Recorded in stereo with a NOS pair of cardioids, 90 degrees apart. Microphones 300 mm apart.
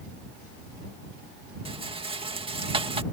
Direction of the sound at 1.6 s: 20° right.